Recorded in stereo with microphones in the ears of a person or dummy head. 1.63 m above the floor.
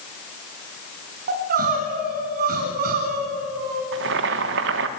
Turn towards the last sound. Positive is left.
turn(degrees=-60)  # may be behind; listen again after turning